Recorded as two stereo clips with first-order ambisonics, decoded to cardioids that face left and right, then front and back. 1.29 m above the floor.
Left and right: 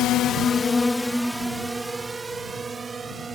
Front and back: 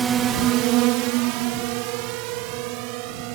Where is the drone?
110° left; by 3.4 s 165° right.